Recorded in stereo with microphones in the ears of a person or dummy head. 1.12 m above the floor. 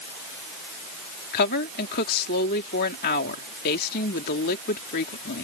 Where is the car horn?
I don't hear a car horn.